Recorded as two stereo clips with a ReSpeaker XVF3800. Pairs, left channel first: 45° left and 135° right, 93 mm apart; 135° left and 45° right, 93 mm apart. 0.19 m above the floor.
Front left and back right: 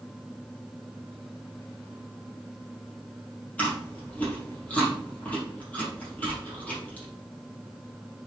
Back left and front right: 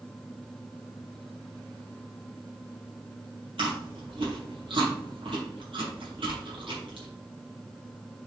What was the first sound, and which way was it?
Chewing, 30° right.